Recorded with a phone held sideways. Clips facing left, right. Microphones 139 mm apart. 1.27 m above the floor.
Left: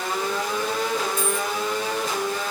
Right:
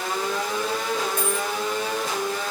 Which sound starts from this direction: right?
A dropped coin, at 1.2 s.